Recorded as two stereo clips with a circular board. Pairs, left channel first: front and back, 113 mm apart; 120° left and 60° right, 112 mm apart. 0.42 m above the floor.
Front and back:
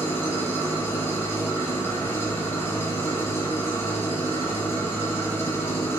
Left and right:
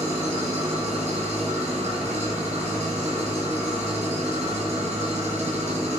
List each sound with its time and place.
0.0 s an engine running: 70° right, 1.1 m